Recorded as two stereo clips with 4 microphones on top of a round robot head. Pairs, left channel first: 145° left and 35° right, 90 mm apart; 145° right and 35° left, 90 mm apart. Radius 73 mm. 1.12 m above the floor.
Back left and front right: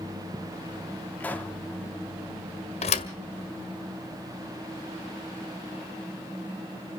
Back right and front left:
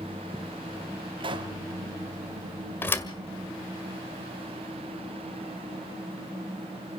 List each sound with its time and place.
1.2 s a pop: 70° left, 2.5 m
2.8 s a thud: 150° left, 1.6 m